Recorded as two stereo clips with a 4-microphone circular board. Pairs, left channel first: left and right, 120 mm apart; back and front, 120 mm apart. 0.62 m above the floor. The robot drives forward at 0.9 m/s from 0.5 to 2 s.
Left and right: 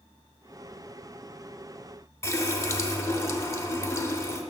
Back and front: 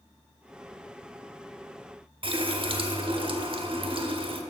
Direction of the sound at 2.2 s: 30° left.